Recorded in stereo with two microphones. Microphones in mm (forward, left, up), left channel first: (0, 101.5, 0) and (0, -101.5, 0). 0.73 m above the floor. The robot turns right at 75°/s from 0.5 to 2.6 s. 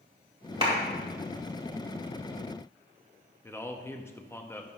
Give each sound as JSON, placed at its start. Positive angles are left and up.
{"t": 0.6, "sound": "a clap", "side_deg": -30, "distance_m": 2.0}
{"t": 3.4, "sound": "a man speaking", "side_deg": 10, "distance_m": 0.6}